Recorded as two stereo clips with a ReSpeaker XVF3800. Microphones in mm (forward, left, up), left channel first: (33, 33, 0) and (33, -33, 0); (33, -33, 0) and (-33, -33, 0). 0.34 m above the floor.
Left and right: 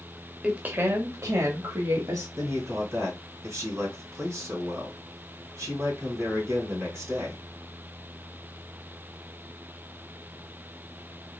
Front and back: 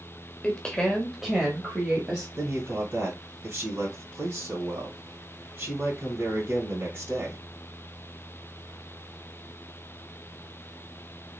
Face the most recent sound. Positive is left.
turn(degrees=-130)